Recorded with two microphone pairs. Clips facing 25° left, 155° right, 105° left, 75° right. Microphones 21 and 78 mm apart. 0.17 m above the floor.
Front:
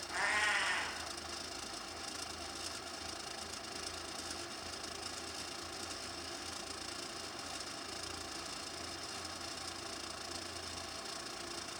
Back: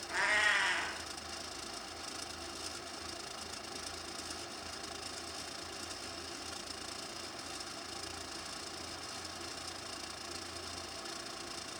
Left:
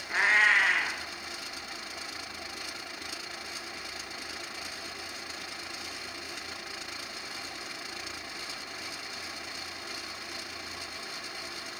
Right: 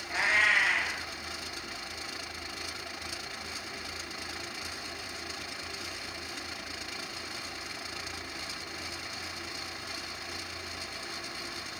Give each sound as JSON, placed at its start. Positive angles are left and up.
{"t": 0.1, "sound": "a cat meowing", "azimuth_deg": 140, "distance_m": 0.8}